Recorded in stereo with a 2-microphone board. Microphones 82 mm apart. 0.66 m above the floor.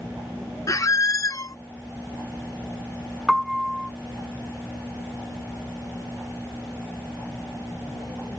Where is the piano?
Centre (ahead or behind).